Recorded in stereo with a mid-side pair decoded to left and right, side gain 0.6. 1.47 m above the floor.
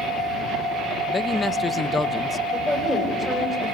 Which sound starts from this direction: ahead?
A woman speaking, at 2.5 s.